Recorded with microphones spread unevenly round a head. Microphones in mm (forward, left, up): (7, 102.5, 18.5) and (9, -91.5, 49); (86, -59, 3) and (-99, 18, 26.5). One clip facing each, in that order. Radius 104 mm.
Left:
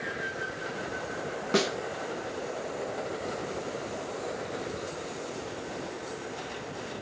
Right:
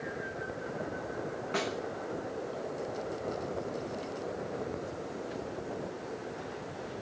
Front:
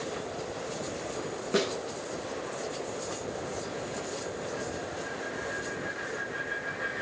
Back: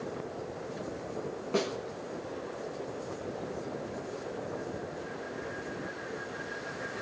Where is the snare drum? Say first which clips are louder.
Left 8 dB, front 3 dB; 55° left, 1.0 m.